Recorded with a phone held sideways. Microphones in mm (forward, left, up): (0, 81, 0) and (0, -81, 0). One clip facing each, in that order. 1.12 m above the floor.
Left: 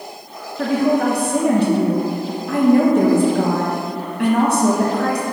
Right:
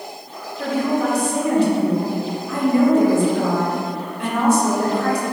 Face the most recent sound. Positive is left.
turn(degrees=60)  # may be behind; listen again after turning